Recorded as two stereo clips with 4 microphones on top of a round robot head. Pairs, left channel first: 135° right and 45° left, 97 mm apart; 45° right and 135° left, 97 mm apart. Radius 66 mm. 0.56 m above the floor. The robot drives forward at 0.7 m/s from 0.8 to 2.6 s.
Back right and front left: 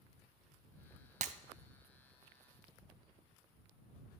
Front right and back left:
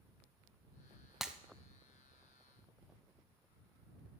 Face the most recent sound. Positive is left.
turn(degrees=150)